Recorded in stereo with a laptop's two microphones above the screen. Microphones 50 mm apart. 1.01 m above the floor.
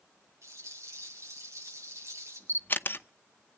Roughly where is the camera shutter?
Left.